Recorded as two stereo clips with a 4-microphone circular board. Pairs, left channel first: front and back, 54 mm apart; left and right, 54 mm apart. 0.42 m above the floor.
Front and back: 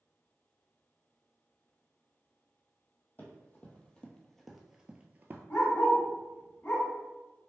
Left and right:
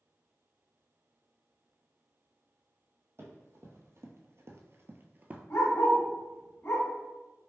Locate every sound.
3.2 s running footsteps: 55° right, 1.1 m; by 5.4 s 145° right, 0.6 m
5.5 s a dog barking: 50° left, 1.6 m